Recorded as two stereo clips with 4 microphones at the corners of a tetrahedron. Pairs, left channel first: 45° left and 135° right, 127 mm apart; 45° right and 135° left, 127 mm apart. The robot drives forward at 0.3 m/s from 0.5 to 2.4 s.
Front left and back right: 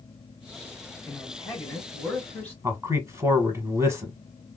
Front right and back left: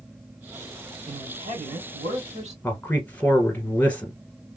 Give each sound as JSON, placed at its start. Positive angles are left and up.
{"t": 1.1, "sound": "a man speaking", "azimuth_deg": 115, "distance_m": 2.5}
{"t": 2.6, "sound": "a man speaking", "azimuth_deg": -105, "distance_m": 1.3}